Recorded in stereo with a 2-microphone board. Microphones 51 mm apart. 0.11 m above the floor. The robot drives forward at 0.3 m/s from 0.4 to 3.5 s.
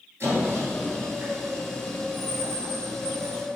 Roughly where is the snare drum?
I don't hear a snare drum.